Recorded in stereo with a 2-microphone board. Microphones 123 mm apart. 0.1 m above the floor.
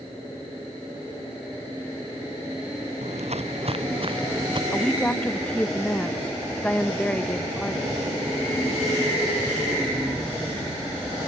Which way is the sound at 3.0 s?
65° right (ahead or behind).